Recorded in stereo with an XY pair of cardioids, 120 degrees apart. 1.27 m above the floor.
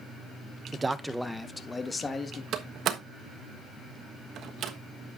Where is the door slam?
60° right, 1.3 m.